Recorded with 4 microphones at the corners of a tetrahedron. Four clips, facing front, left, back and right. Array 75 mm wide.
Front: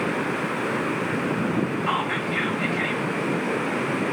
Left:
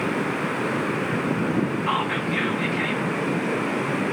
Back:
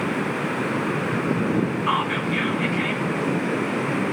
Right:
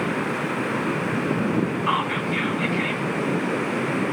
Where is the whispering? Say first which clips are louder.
Right 1 dB, back 2 dB; 25° left, 1.4 m.